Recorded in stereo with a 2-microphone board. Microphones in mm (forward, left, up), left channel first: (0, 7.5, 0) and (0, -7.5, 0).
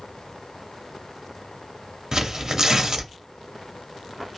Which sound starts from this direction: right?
Tearing paper, at 2.1 s.